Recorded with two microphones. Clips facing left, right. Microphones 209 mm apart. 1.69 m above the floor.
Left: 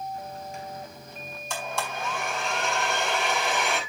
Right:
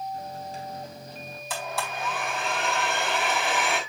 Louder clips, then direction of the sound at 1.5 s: Even; 5° right (ahead or behind).